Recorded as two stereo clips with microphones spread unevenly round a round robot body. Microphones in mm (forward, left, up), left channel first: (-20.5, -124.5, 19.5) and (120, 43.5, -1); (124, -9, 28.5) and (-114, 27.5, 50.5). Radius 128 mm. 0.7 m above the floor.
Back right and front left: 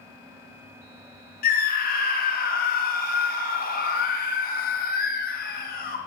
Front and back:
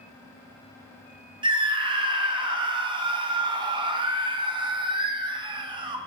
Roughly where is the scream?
Behind right.